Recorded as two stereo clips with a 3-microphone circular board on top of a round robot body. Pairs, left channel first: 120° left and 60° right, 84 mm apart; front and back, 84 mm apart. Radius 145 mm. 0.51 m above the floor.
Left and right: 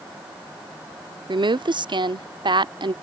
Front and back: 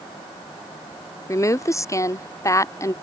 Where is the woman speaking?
50° right.